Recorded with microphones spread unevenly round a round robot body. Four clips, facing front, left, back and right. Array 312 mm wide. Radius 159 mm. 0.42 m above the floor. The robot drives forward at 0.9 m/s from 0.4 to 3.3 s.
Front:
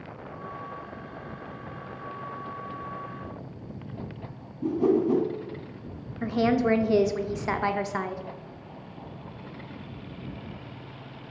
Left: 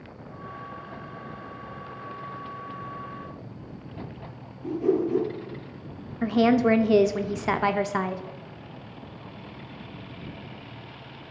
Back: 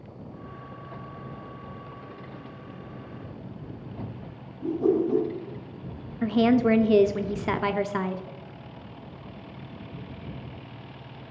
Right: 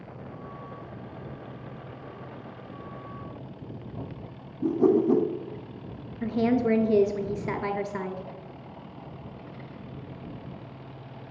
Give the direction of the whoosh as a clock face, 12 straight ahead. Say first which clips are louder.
Right 3 dB, front 1 dB; 2 o'clock.